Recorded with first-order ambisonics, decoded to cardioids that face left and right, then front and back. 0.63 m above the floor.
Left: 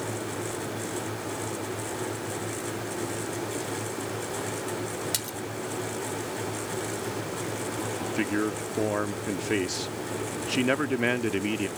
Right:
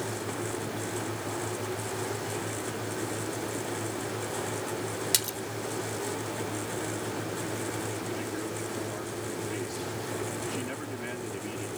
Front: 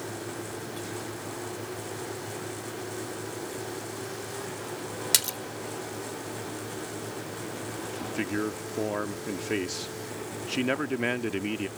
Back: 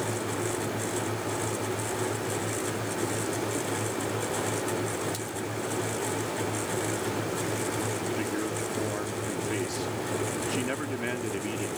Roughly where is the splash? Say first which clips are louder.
Right 3 dB, front 8 dB; ahead.